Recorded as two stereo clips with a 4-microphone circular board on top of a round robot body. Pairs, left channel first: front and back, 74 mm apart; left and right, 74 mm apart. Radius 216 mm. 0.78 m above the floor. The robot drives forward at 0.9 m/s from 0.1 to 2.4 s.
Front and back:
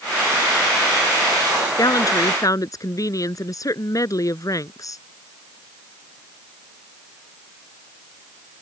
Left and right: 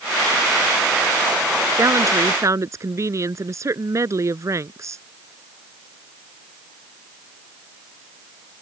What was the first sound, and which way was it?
A woman speaking, 40° right.